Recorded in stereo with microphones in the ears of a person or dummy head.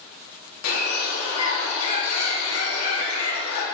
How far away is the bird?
About 1.7 m.